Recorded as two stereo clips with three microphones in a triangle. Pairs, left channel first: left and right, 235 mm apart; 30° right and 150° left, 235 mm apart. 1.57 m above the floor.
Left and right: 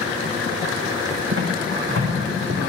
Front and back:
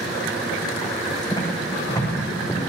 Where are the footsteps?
105° right, 6.5 m; by 2.6 s 115° right, 7 m.